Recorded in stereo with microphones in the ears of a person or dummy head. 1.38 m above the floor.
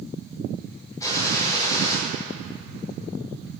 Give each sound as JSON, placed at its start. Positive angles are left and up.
{"t": 1.0, "sound": "a gunshot", "side_deg": 15, "distance_m": 4.5}